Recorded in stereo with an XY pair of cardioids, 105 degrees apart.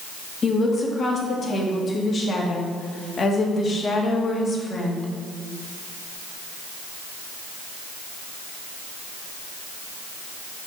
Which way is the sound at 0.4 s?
40° left.